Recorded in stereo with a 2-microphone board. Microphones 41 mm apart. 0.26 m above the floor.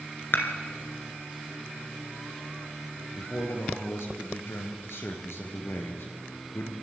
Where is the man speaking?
70° left (ahead or behind), 4 m.